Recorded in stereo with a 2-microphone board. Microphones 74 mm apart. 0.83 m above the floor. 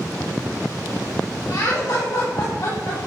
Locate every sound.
1.5 s laughter: 60° left (ahead or behind), 1.4 m; by 3.0 s 75° left (ahead or behind), 3 m